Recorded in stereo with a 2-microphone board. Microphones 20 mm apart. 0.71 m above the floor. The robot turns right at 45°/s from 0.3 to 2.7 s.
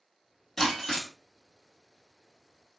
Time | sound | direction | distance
0.6 | breaking glass | 40° left (ahead or behind) | 1.4 m